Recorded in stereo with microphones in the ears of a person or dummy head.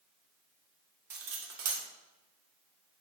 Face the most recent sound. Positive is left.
turn(degrees=-65)  # may be behind; listen again after turning